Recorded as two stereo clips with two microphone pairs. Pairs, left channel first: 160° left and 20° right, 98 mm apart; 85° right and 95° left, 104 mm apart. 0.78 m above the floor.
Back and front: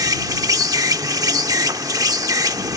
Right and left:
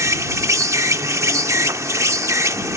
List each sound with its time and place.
0.0 s an insect: 35° left